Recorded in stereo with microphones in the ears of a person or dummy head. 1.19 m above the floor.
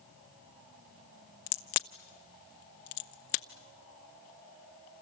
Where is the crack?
35° left (ahead or behind), 0.6 m.